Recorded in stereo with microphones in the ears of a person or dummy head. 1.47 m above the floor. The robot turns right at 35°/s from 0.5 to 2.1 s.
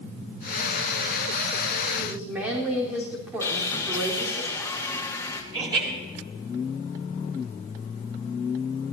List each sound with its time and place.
2.0 s a woman speaking: 5° right (ahead or behind), 4 m; by 4.4 s 10° right (ahead or behind), 4 m
3.4 s sawing: 15° left (ahead or behind), 1.3 m
5.5 s laughter: 20° right (ahead or behind), 7 m